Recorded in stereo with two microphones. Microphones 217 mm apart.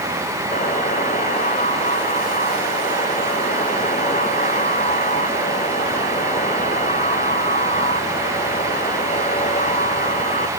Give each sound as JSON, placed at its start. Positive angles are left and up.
{"t": 0.5, "sound": "a buzzer", "side_deg": 35}